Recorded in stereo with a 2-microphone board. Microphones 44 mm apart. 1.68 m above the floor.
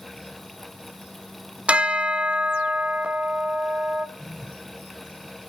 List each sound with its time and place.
1.7 s a bell: 25° right (ahead or behind), 0.6 m
4.2 s a phone buzzing: 25° left (ahead or behind), 7.5 m